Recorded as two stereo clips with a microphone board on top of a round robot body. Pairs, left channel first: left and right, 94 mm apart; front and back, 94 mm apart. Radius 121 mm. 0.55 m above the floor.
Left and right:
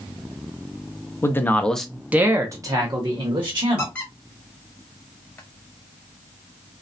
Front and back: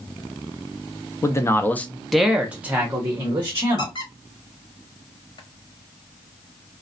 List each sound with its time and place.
1.2 s a man speaking: 40° left, 0.7 m; by 4.0 s 125° right, 1.3 m
3.8 s a squeak: 20° left, 1.2 m